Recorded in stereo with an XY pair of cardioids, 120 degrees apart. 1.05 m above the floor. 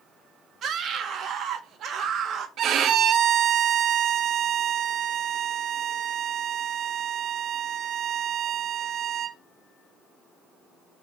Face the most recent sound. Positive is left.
turn(degrees=-60)